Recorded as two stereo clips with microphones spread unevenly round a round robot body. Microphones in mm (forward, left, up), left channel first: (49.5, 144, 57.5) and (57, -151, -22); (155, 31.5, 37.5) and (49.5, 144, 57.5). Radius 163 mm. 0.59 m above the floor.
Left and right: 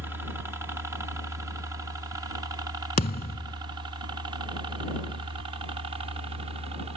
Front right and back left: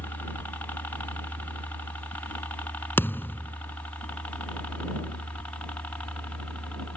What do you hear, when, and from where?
0.0 s a helicopter: 85° right; by 7.0 s 115° right
3.0 s a thud: 35° left